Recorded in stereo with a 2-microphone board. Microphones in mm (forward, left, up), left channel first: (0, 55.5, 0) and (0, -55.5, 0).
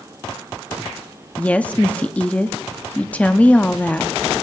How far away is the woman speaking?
About 0.5 m.